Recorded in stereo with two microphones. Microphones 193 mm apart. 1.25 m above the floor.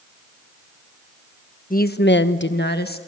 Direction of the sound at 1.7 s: 45° left (ahead or behind).